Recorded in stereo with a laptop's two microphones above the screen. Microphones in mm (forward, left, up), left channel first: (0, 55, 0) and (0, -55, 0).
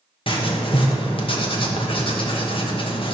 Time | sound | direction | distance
0.3 | writing | 55° left (ahead or behind) | 1.1 m